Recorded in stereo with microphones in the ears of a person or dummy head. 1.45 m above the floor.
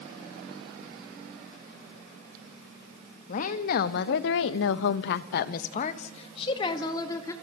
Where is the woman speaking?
40° left (ahead or behind), 1.7 m; by 7.3 s 20° left (ahead or behind), 2 m.